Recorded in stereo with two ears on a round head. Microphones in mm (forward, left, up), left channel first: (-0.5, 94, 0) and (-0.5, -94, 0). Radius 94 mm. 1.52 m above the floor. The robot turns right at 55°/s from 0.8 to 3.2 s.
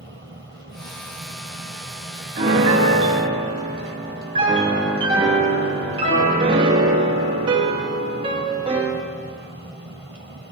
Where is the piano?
90° right, 1.0 m; by 9.0 s 45° right, 1.0 m.